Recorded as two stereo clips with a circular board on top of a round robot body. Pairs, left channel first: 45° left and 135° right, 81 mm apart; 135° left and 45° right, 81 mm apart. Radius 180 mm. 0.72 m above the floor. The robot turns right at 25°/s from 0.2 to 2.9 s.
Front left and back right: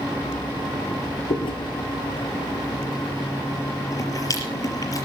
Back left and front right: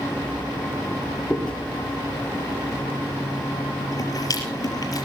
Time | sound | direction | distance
1.3 | chewing | 50° left | 5 m